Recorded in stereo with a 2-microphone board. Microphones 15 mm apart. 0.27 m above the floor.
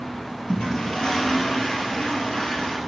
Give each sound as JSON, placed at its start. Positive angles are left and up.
{"t": 0.5, "sound": "a toilet flushing", "side_deg": 80, "distance_m": 2.5}